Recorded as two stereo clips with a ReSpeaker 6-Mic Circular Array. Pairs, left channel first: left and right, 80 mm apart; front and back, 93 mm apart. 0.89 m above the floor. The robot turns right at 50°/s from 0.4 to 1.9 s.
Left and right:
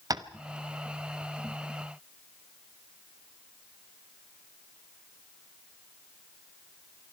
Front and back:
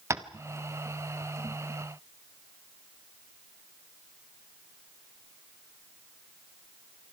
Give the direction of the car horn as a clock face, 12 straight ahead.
No car horn in this recording.